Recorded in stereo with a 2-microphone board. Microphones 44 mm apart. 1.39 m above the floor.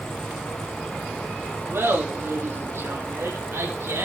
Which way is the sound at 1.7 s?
55° right (ahead or behind).